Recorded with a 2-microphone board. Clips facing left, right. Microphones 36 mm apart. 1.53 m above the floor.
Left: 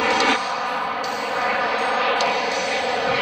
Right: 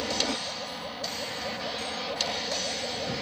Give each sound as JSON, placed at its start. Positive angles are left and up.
{"t": 0.0, "sound": "an aircraft", "side_deg": 65}